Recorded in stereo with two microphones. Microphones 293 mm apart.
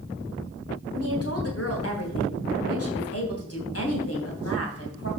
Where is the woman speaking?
50° left (ahead or behind), 3.5 m.